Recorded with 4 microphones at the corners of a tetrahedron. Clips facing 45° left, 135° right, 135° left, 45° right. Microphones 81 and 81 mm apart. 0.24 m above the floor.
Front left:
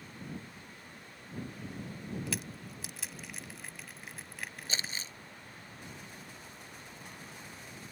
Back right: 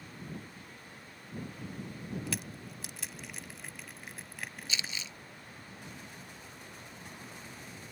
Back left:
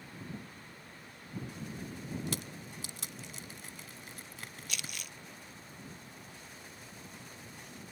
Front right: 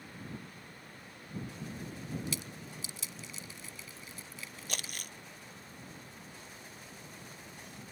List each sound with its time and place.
2.3 s crushing: 135° left
4.7 s crumpling: 5° right